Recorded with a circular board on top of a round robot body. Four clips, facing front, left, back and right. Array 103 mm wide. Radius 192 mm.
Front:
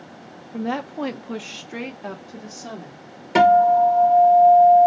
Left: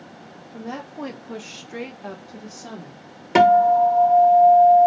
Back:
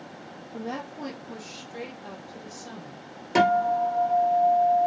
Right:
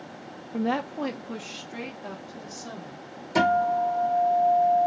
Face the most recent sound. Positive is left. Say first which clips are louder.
# left 8 dB, front 8 dB
turn(degrees=75)